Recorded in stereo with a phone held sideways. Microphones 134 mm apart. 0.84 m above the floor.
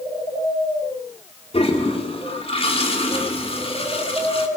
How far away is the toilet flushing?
About 2.5 m.